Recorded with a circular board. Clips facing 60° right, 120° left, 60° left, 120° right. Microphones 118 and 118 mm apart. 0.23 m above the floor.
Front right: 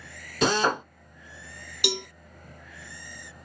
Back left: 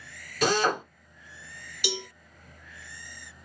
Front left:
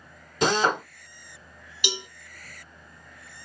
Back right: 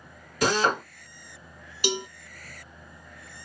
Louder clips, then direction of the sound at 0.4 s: Front right 1 dB, front left 1 dB; straight ahead.